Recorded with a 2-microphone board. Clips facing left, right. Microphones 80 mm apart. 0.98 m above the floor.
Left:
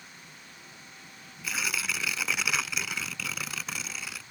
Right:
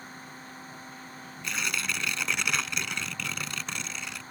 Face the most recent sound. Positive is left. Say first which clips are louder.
# even
turn(degrees=5)  # may be behind; listen again after turning